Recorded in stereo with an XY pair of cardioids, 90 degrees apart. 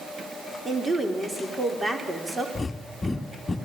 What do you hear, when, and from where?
0.7 s a woman speaking: 25° right, 3.5 m
2.5 s breathing: 30° left, 1.6 m